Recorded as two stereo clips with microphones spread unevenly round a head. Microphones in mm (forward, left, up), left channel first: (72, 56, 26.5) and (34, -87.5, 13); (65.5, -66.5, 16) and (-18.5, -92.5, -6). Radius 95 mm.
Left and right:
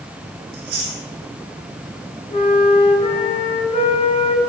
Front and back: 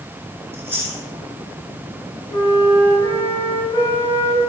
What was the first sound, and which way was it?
Chewing, 100° right.